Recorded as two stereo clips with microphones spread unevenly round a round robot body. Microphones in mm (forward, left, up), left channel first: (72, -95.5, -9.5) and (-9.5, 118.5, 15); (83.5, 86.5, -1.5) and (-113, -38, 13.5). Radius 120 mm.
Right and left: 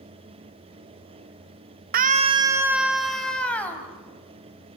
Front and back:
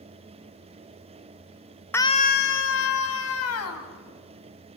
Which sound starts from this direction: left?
A scream, at 1.9 s.